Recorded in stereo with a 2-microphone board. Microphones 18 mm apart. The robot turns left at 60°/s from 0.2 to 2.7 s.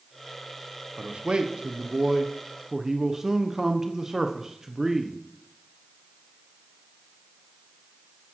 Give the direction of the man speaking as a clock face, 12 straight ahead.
2 o'clock.